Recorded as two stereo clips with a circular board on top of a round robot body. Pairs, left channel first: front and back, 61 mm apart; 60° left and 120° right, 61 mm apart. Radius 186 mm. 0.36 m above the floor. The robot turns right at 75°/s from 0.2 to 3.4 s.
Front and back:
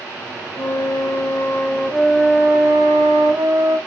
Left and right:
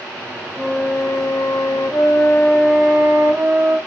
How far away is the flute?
About 2.5 m.